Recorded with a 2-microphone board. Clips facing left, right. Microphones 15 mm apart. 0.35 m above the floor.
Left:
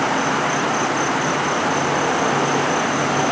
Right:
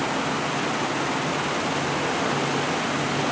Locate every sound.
0.0 s an insect: 60° left (ahead or behind)